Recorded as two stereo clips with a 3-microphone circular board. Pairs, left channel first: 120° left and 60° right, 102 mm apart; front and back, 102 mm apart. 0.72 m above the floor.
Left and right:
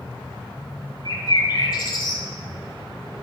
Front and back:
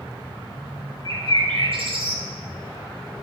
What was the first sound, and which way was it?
A bird, 160° left.